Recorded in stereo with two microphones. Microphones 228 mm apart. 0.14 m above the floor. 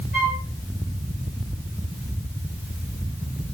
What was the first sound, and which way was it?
A flute, 40° right (ahead or behind).